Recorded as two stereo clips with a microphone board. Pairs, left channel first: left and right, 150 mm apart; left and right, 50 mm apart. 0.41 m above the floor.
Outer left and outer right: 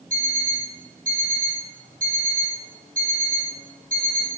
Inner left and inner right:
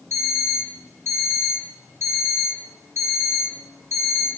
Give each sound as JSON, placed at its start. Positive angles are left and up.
{"t": 0.1, "sound": "an alarm clock", "side_deg": -60, "distance_m": 1.1}